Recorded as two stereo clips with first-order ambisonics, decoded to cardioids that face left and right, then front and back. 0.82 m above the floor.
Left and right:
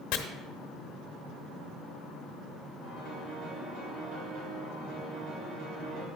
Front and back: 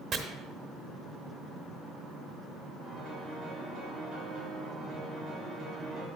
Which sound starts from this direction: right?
A piano, at 2.8 s.